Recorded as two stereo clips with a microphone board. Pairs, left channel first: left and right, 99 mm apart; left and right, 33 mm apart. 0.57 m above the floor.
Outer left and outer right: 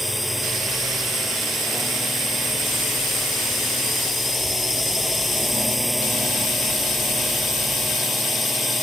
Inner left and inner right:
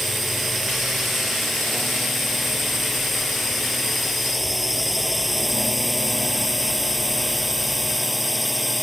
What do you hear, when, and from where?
0.0 s a drone: centre (ahead or behind)